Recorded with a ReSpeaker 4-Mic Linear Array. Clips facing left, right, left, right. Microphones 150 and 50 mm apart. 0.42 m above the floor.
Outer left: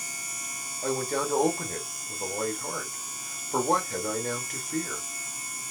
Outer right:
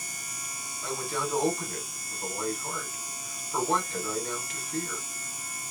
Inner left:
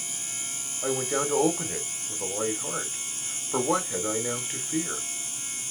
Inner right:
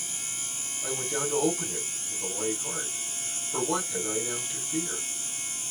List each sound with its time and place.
0.8 s a man speaking: 50° left (ahead or behind), 1.7 m